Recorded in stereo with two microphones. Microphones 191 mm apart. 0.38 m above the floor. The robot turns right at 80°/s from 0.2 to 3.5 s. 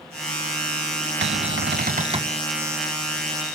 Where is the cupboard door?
105° right, 0.7 m; by 2.4 s 15° right, 0.7 m.